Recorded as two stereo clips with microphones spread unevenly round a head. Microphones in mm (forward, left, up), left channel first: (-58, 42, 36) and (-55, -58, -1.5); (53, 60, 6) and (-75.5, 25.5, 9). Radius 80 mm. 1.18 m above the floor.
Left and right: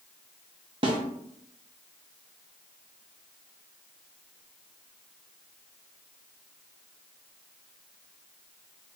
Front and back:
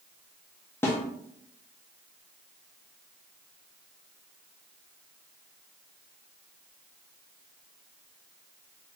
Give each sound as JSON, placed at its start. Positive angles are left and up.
{"t": 0.8, "sound": "a snare drum", "azimuth_deg": -45, "distance_m": 0.6}